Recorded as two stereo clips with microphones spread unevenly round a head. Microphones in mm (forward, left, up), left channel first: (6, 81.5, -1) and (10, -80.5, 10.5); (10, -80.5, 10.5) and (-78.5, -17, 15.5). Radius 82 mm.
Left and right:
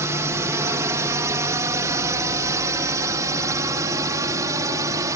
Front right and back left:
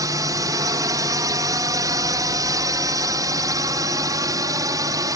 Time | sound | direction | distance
0.0 | a drone | 160° right | ?